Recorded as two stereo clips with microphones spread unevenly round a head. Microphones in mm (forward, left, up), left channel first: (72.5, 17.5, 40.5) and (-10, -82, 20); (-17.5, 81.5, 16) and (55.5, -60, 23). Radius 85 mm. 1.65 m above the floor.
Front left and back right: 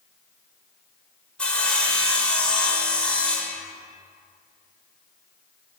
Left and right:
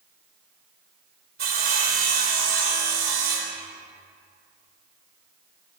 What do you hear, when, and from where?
1.4 s sawing: 35° right, 2.5 m